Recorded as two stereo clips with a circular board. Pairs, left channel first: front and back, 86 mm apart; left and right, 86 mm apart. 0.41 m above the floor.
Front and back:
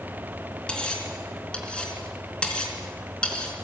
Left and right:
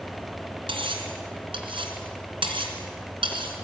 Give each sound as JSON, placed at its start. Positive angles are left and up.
{"t": 0.7, "sound": "cutlery clinking", "azimuth_deg": -75, "distance_m": 3.5}